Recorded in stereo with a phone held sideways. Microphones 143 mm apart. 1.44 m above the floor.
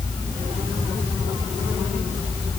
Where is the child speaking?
No child speaking in this recording.